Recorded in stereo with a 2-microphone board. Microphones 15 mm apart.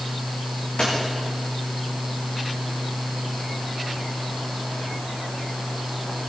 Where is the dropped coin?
75° left (ahead or behind), 6.5 m.